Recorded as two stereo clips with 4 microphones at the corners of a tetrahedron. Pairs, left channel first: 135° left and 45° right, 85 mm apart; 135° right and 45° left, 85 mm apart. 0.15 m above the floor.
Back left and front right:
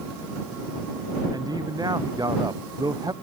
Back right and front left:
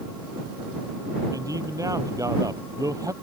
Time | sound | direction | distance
1.3 | a man speaking | 5° right | ?